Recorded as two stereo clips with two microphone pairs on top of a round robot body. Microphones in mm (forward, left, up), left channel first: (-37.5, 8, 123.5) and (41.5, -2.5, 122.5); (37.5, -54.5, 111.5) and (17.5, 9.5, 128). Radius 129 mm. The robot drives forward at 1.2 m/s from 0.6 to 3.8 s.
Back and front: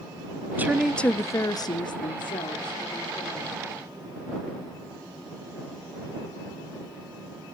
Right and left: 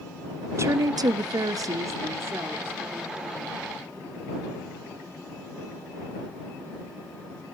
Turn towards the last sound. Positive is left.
turn(degrees=170)